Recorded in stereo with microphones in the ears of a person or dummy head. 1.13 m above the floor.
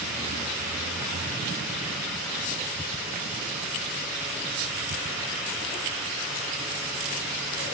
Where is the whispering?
I don't hear whispering.